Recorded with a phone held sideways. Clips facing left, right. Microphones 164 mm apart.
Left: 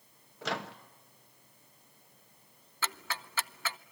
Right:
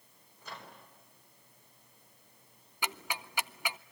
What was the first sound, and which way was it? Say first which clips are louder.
A microwave: left 12 dB; 85° left.